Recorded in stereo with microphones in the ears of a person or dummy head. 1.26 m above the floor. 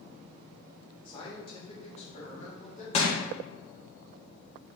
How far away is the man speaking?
About 1.2 m.